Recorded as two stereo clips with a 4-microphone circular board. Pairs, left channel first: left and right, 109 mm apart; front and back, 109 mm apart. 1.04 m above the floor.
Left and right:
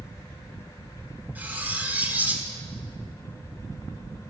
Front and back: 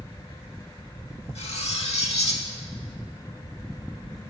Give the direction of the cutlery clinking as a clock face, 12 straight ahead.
1 o'clock.